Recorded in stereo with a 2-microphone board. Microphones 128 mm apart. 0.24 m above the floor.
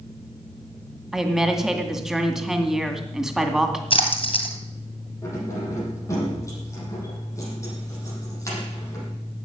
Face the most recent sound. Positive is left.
turn(degrees=25)  # may be behind; listen again after turning